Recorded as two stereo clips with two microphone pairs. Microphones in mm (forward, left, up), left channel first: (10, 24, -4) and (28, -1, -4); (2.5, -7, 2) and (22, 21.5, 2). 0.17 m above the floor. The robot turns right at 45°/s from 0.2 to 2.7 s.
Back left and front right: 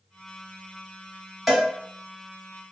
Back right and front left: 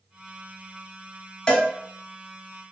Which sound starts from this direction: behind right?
A cowbell, at 1.5 s.